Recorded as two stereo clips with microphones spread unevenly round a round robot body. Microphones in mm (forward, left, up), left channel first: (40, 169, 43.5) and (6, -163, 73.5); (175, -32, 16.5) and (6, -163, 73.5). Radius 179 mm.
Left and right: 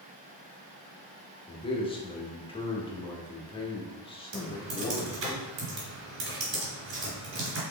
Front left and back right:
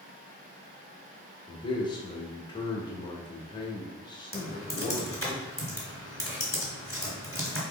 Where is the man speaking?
30° left, 0.8 m.